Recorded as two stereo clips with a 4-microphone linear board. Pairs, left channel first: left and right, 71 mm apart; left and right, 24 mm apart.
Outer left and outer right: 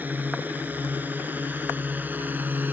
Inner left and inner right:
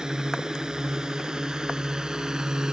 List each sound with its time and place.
0.0 s a drone: 25° right (ahead or behind)